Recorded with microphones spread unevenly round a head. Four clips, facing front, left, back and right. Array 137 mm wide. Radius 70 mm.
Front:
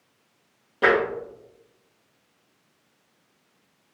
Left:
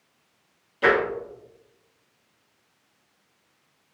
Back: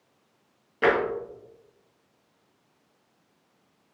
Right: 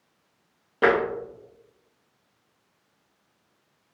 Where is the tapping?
75° right, 1.2 m.